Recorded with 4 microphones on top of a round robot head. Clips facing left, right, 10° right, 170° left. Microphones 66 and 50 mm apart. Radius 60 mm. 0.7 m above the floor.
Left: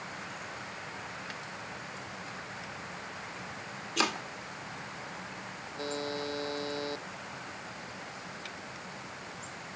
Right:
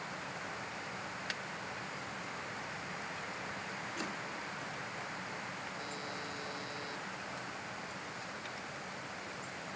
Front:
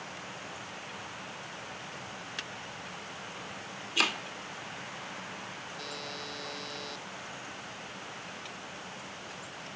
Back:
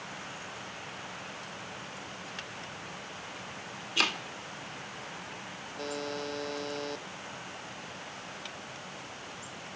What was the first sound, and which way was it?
Chopping, 75° left.